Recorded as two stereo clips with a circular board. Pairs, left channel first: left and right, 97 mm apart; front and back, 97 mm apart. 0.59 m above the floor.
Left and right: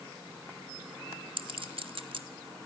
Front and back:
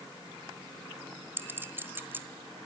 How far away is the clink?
About 1.4 m.